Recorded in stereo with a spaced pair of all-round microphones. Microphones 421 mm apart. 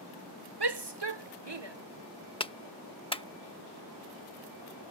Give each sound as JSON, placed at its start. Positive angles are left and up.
{"t": 0.6, "sound": "a shout", "side_deg": -65}
{"t": 2.4, "sound": "a clap", "side_deg": 10}